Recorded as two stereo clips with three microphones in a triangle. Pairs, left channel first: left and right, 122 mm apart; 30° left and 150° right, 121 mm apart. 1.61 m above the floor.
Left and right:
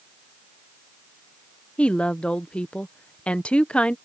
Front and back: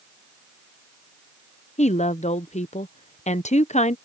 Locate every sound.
1.8 s a woman speaking: 10° left